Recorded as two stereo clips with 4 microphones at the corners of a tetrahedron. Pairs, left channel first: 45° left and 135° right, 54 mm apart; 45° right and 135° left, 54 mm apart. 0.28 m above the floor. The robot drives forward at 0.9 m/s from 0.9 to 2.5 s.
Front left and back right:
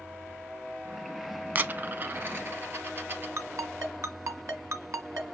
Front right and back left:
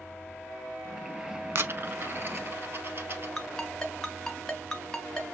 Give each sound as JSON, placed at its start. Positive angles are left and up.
{"t": 1.6, "sound": "a dropped coin", "azimuth_deg": 170, "distance_m": 0.5}
{"t": 3.4, "sound": "a ringtone", "azimuth_deg": -130, "distance_m": 1.6}